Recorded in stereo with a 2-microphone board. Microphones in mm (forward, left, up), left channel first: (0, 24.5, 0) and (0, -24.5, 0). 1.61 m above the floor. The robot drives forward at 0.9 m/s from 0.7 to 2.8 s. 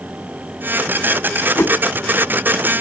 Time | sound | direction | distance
1.6 | a whoosh | 75° left (ahead or behind) | ?